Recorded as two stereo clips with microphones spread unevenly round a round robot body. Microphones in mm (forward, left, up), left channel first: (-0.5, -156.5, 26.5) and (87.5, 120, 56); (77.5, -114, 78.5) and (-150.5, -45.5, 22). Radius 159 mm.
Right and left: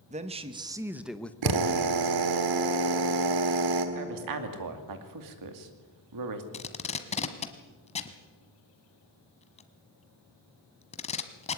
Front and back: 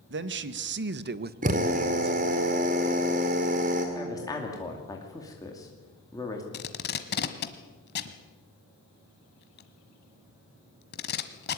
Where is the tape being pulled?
40° right, 1.3 m.